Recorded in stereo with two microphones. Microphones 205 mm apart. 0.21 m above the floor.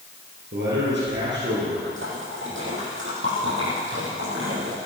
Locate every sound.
0.5 s a man speaking: 60° right (ahead or behind), 5.5 m
1.8 s a splash: 70° right (ahead or behind), 5 m